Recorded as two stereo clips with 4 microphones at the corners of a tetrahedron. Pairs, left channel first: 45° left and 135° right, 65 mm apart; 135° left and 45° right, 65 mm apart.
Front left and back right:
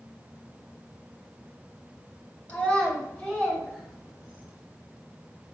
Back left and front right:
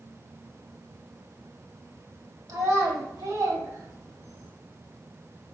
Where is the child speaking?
25° right, 1.8 m; by 4.5 s 45° right, 2.5 m.